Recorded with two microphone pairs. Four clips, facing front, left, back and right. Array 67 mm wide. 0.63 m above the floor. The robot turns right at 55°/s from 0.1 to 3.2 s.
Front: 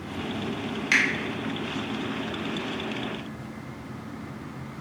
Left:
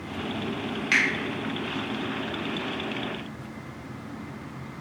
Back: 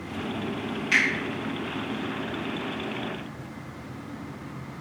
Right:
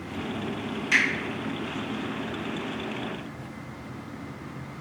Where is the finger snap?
25° left, 1.0 m; by 1.0 s 30° left, 1.0 m.